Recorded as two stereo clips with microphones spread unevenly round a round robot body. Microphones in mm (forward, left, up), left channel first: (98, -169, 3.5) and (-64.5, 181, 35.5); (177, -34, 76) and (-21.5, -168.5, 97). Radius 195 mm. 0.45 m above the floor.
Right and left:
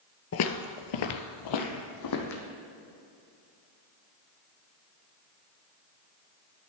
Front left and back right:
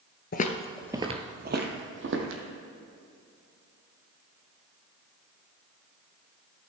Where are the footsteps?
10° right, 0.6 m; by 2.4 s 115° right, 1.6 m.